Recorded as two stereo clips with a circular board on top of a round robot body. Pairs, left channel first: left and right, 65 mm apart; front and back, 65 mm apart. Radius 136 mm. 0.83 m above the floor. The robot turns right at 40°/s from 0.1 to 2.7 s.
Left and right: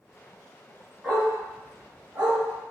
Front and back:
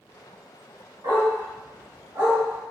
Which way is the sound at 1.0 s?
175° left.